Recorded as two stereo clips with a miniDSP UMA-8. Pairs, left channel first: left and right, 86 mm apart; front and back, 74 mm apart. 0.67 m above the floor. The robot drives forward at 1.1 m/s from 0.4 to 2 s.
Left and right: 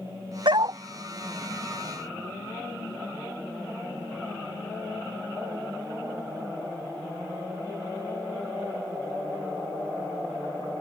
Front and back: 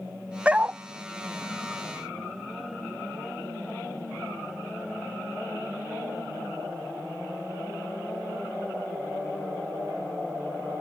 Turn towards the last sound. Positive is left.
turn(degrees=-140)